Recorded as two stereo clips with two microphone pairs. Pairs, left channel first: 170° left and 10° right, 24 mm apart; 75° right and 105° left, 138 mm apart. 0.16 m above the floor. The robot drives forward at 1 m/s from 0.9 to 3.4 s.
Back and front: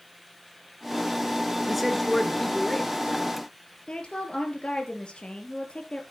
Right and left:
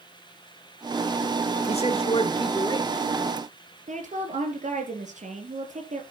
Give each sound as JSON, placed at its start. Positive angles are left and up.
{"t": 1.7, "sound": "a man speaking", "azimuth_deg": -90, "distance_m": 2.0}
{"t": 3.9, "sound": "a woman speaking", "azimuth_deg": 125, "distance_m": 3.0}